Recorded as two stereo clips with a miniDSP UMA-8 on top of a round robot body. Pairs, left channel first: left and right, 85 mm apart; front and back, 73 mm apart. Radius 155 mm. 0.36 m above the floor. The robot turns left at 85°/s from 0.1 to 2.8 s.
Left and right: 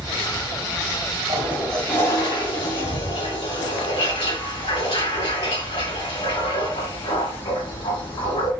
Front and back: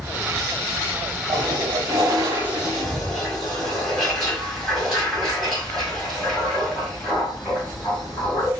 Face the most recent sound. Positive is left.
turn(degrees=85)